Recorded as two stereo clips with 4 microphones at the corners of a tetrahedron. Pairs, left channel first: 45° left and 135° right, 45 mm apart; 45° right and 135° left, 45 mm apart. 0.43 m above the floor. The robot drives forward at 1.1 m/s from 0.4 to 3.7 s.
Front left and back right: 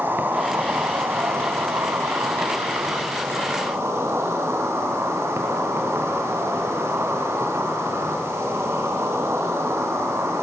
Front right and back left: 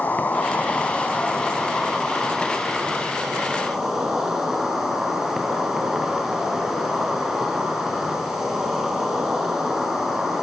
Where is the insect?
95° right, 3 m; by 10.4 s 145° right, 5 m.